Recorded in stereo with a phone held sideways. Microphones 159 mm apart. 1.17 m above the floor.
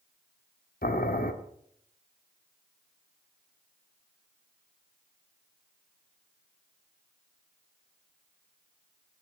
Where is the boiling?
65° left (ahead or behind), 1.5 m.